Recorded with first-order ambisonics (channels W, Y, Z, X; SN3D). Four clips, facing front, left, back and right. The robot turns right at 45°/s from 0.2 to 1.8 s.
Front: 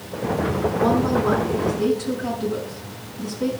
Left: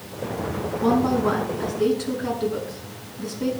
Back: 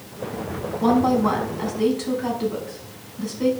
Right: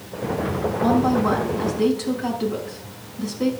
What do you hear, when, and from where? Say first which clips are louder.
0.8 s a woman speaking: right 1 dB, back 3 dB; 175° right, 4.5 m; by 3.5 s 130° right, 4.5 m